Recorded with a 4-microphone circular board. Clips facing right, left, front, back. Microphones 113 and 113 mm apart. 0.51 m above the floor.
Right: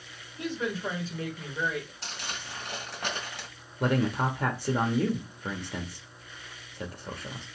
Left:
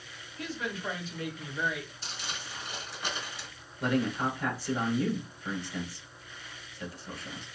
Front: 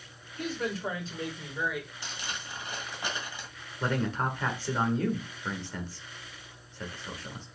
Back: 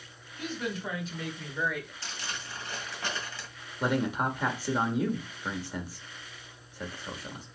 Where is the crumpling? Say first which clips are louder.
Right 2 dB, even; 75° right, 1.8 m.